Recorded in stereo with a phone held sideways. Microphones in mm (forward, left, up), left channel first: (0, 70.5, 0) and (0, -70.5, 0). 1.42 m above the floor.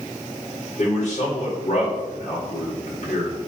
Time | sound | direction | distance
0.8 | a man speaking | 50° left (ahead or behind) | 4.5 m